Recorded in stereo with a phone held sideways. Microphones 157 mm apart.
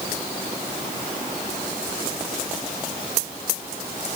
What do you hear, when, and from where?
Only background noise.